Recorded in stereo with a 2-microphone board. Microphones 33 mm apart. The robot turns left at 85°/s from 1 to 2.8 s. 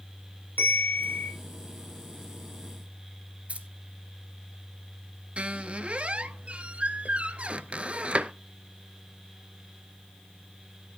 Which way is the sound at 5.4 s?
35° right (ahead or behind).